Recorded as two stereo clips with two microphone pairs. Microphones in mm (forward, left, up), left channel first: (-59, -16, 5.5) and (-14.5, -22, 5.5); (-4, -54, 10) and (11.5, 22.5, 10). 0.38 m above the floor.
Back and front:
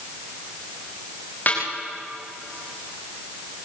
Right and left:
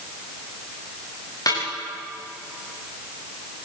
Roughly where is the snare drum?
Behind right.